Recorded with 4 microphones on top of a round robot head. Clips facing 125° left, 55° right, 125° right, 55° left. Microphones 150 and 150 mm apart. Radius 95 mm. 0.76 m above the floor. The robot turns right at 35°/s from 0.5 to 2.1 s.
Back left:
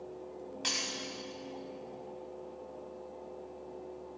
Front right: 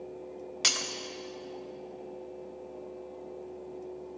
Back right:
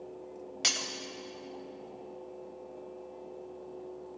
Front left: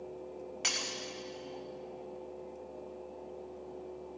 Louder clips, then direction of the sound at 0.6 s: Front right 3 dB, back right 3 dB; 70° right.